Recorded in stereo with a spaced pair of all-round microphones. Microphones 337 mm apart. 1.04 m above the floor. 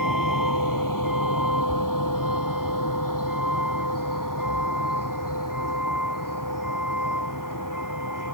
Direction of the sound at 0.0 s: 70° left (ahead or behind).